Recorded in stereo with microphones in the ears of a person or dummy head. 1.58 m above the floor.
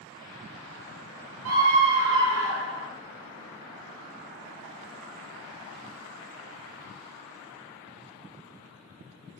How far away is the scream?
About 0.9 m.